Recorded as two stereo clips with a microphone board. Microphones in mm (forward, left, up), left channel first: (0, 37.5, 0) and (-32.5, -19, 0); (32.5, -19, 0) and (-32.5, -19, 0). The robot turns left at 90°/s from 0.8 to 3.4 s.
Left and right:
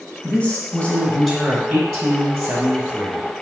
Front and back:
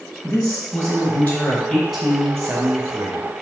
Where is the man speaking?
25° left, 1.0 m; by 3.3 s 160° left, 1.0 m.